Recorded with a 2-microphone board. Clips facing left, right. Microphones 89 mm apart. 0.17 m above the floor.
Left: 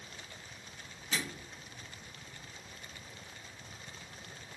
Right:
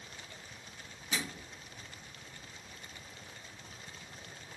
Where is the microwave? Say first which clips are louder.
Even; 15° right (ahead or behind), 1.4 m.